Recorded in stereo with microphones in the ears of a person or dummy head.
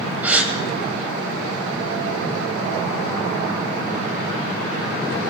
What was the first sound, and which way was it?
A gasp, 10° right (ahead or behind).